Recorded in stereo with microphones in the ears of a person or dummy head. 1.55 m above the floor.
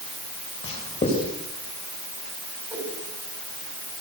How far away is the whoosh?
About 5 m.